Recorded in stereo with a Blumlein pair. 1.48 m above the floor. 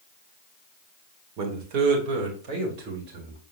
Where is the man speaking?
35° right, 2 m; by 3.4 s 45° right, 4 m.